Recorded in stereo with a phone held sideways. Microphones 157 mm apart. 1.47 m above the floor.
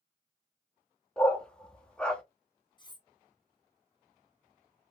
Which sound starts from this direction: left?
Cutlery clinking, at 2.8 s.